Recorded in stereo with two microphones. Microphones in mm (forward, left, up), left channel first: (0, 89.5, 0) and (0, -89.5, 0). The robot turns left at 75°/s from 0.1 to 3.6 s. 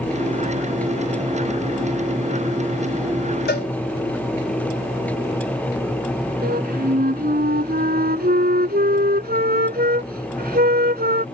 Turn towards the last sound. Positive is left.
turn(degrees=-60)  # may be behind; listen again after turning